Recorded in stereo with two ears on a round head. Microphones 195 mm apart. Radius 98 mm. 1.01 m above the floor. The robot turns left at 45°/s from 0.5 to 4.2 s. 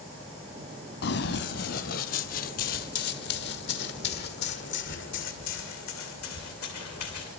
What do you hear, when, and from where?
1.0 s running footsteps: 50° left (ahead or behind), 1.6 m; by 7.3 s 70° left (ahead or behind), 4 m